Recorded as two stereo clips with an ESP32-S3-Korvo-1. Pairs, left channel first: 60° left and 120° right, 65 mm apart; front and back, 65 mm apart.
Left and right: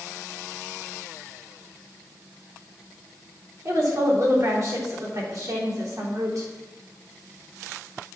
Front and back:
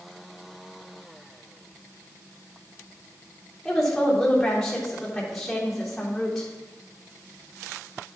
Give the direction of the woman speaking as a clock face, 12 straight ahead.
3 o'clock.